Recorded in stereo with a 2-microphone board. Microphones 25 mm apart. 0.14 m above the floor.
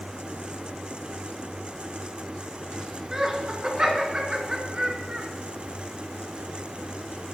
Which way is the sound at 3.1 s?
30° right (ahead or behind).